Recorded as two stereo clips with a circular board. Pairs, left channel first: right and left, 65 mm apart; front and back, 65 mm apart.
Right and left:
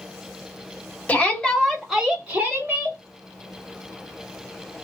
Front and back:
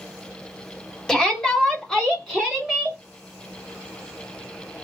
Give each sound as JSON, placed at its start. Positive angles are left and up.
{"t": 1.1, "sound": "a shout", "azimuth_deg": -70, "distance_m": 1.2}